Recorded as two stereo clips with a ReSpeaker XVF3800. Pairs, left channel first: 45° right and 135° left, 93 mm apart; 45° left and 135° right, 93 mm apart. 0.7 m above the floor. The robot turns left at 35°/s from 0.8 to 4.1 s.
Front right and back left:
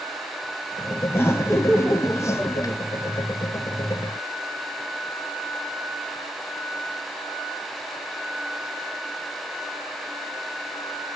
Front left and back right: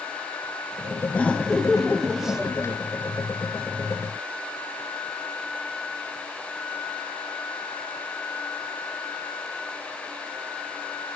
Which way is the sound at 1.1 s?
15° right.